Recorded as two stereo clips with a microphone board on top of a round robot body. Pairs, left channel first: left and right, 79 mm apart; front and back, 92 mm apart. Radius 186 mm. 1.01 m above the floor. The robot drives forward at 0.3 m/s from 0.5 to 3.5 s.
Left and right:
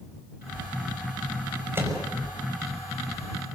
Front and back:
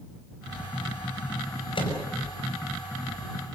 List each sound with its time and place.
1.8 s a microwave: 30° right, 5 m